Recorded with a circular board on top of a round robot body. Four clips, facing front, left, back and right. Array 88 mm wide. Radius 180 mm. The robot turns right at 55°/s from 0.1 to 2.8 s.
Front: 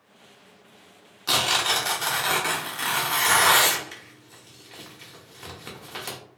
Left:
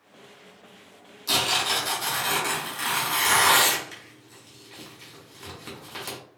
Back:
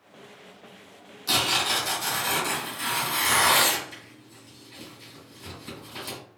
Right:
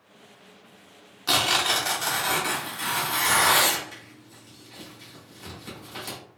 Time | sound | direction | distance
1.3 | tearing paper | 60° right | 1.1 m